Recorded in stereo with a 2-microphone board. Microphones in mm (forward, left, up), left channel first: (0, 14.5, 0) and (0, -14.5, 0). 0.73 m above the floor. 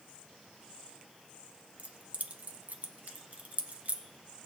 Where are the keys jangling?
60° right (ahead or behind), 0.7 m.